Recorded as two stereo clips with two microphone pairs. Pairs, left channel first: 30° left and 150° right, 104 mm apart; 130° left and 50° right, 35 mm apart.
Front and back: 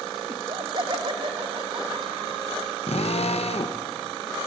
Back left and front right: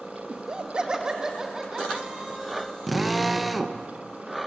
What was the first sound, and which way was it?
Laughter, 100° right.